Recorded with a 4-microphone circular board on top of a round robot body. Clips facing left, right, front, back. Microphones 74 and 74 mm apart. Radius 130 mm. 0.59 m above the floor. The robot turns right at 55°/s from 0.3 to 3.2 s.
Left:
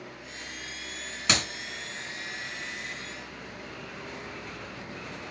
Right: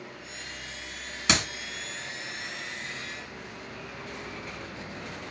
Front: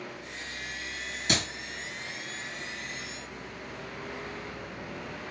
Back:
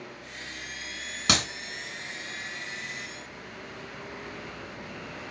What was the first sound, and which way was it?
A clap, 175° right.